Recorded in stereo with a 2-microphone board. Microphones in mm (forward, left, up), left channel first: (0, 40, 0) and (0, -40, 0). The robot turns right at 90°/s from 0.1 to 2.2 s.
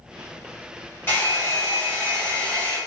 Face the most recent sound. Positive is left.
turn(degrees=150)